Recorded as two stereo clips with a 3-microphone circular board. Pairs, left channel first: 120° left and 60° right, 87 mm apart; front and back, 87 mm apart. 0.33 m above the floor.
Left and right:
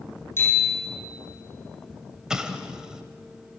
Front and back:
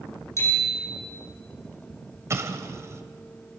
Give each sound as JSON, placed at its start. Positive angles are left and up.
{"t": 0.4, "sound": "a bicycle bell", "azimuth_deg": 55, "distance_m": 9.5}
{"t": 2.3, "sound": "an explosion", "azimuth_deg": -140, "distance_m": 1.6}